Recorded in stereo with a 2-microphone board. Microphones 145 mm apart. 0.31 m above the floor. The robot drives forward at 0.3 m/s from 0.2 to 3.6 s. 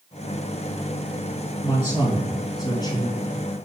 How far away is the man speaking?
About 4 m.